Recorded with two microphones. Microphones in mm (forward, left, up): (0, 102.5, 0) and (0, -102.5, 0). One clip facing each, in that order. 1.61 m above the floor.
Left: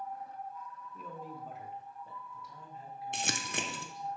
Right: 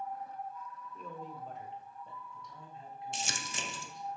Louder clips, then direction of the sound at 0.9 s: Even; 5° left (ahead or behind).